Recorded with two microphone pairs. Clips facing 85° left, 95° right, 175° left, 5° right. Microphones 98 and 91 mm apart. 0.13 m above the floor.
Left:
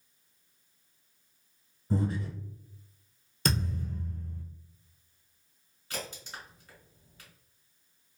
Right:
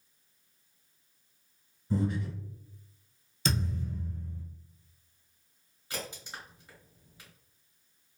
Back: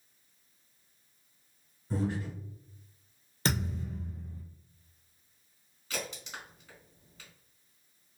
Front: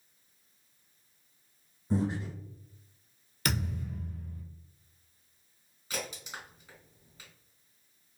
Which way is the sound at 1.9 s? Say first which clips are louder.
Even, front 2 dB; 55° left.